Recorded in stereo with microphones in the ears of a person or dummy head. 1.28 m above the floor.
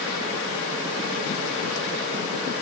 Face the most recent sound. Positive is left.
No sound to turn to.